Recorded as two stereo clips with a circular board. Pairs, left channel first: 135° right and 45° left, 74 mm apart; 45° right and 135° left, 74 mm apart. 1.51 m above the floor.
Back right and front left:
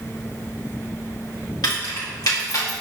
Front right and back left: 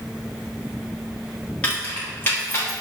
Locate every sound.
1.6 s keys jangling: 120° right, 2.5 m; by 2.7 s 100° right, 2.5 m